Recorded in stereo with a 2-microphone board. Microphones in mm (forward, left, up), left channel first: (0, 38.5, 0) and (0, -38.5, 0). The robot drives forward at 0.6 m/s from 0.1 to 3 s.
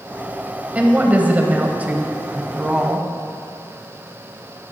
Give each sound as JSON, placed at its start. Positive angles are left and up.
{"t": 0.8, "sound": "a woman speaking", "side_deg": -20, "distance_m": 1.0}